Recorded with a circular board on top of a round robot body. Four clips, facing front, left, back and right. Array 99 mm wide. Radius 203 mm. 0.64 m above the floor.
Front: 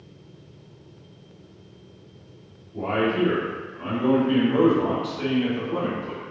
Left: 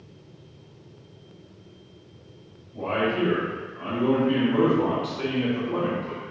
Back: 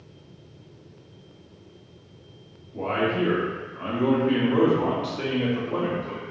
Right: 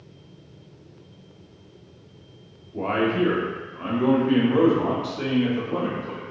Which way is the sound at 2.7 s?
100° right.